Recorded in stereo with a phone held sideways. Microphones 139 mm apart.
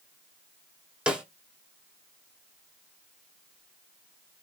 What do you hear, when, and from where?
1.1 s a snare drum: 5° right (ahead or behind), 0.8 m